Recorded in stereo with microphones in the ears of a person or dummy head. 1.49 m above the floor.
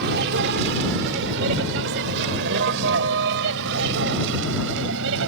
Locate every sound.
0.0 s a vehicle: 60° right (ahead or behind); by 5.3 s 70° right (ahead or behind)